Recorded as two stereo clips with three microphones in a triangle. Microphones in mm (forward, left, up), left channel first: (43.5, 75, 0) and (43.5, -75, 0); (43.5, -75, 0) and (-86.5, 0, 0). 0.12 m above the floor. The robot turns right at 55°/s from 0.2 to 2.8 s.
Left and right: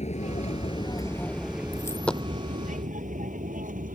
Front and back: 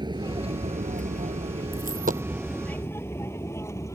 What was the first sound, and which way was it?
An aircraft, 100° left.